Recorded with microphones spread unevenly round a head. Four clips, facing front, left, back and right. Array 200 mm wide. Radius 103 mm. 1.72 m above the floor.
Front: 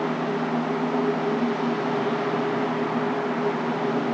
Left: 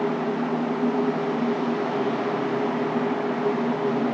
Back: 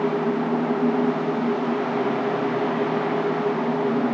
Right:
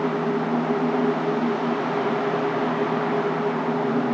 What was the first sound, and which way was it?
Only background noise.